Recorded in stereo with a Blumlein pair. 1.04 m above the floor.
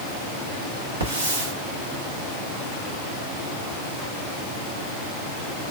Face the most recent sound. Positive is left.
turn(degrees=-70)